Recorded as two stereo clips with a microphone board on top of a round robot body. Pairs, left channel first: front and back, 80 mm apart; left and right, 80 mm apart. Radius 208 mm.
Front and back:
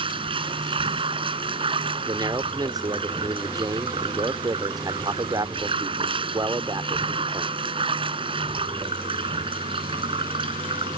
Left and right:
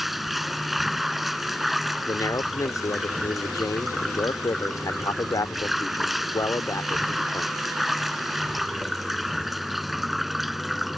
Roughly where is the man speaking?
Behind left.